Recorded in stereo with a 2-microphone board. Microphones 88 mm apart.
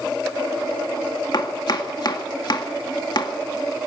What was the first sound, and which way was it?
Chopping, 50° left (ahead or behind).